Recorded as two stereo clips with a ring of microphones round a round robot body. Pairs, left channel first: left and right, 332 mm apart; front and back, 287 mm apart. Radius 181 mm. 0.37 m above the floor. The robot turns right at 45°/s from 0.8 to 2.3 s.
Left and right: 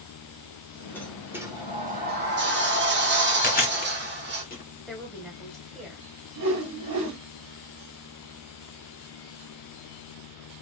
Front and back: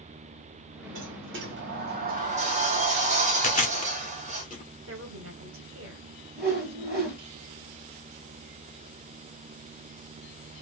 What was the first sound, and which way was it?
A sliding door, 170° left.